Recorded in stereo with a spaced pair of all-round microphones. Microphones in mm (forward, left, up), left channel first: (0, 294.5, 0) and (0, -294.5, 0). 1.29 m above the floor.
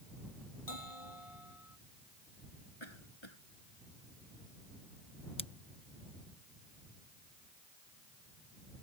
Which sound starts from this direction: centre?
Scissors, at 5.4 s.